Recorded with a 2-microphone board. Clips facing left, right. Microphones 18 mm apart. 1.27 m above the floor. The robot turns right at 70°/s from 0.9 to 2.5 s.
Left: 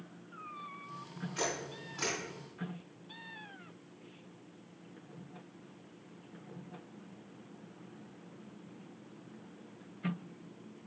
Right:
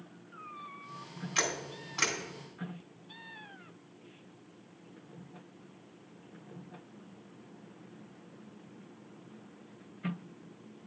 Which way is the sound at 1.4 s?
80° right.